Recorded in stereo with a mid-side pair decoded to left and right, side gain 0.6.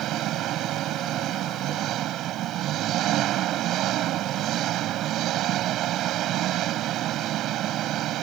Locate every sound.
0.0 s an engine running: 60° right